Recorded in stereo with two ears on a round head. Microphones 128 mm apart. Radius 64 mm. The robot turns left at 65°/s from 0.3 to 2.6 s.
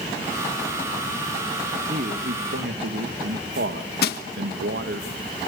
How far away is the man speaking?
About 1.7 m.